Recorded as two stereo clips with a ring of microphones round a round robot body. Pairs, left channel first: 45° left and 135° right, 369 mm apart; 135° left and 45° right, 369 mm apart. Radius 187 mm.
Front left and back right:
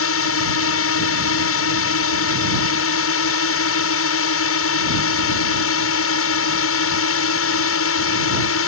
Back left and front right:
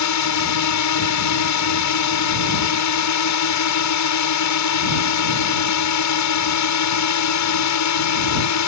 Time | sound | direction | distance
0.0 | a drone | 95° left | ?